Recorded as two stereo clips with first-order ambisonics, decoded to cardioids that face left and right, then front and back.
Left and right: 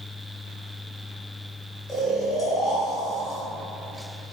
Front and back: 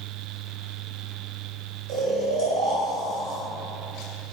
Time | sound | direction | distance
1.9 | snoring | 170° left | 1.3 m